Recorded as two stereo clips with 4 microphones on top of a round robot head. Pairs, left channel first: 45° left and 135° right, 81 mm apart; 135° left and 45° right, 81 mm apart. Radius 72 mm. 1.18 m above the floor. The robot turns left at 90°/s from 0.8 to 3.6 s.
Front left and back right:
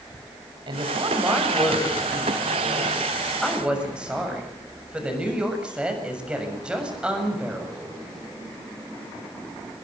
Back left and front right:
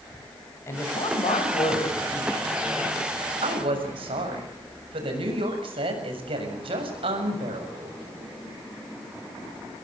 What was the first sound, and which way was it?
A woman speaking, 165° right.